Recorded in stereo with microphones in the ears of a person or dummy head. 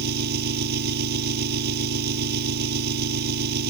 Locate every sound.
0.0 s an engine running: 60° right (ahead or behind)